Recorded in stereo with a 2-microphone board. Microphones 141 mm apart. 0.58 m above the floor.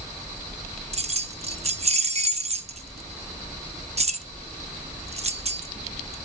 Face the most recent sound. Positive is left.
turn(degrees=-50)  # may be behind; listen again after turning